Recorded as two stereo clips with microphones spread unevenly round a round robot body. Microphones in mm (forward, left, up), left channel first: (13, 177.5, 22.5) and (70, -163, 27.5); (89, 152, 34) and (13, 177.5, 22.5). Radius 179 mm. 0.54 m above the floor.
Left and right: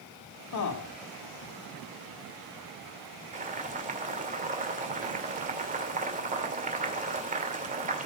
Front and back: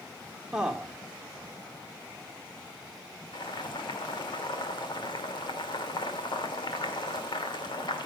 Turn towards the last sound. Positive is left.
turn(degrees=-15)